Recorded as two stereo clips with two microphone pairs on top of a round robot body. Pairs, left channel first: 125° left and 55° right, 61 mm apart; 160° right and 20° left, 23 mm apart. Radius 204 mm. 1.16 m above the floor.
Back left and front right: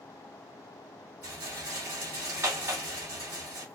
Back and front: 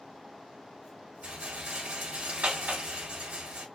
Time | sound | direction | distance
1.2 | a rattle | 5° right | 3.5 m